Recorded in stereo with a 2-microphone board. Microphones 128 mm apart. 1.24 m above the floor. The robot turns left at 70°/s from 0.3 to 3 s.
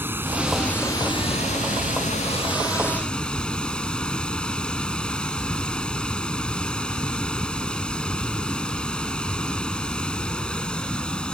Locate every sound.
0.0 s running water: 165° right; by 11.3 s 5° left